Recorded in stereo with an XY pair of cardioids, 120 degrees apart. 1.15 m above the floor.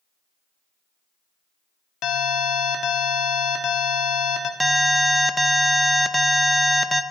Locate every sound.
2.0 s an alarm: 65° left, 1.5 m
4.6 s an alarm: 5° right, 0.7 m